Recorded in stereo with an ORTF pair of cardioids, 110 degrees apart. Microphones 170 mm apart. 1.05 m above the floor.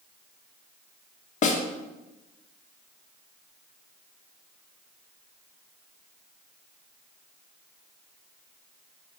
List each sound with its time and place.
1.4 s a snare drum: 50° left, 1.2 m